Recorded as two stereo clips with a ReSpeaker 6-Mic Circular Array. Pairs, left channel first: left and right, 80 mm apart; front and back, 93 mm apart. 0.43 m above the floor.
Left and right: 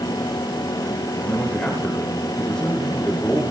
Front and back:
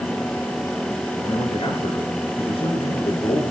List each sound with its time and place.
1.2 s a man speaking: 10° left, 8 m